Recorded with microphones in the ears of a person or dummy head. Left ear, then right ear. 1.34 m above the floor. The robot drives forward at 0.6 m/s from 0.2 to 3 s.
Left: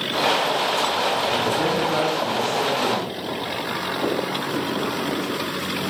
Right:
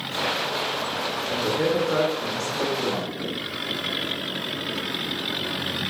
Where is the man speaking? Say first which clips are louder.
Left 2 dB; 35° right (ahead or behind), 4.5 m; by 3.1 s 25° right (ahead or behind), 5 m.